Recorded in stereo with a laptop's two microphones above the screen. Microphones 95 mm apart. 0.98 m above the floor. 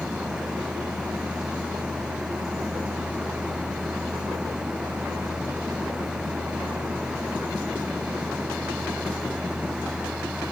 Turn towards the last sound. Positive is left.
turn(degrees=-5)  # may be behind; listen again after turning